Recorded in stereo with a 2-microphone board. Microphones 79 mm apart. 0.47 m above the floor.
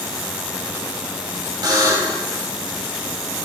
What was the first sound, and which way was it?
A buzzer, 55° right (ahead or behind).